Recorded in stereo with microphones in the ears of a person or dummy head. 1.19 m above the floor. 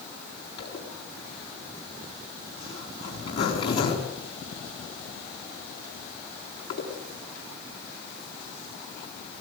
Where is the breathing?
I don't hear breathing.